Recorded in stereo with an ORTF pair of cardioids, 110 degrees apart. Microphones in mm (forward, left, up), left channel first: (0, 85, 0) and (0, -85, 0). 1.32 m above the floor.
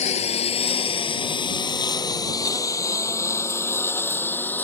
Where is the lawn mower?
45° left; by 4.7 s 10° left.